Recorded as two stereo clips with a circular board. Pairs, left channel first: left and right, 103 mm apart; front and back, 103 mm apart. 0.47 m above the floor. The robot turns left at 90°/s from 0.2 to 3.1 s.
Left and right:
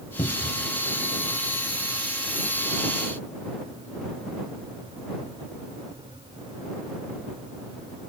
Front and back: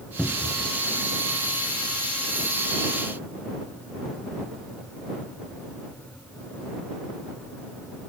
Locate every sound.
0.2 s a cupboard door: 75° left; by 0.7 s 30° left